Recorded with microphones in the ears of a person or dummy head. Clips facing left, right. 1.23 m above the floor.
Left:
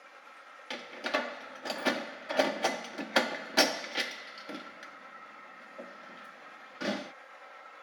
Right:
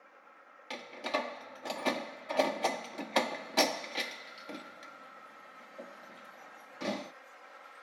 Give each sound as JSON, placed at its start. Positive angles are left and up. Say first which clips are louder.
{"t": 0.7, "sound": "a door slam", "louder": "left 1 dB", "side_deg": 5}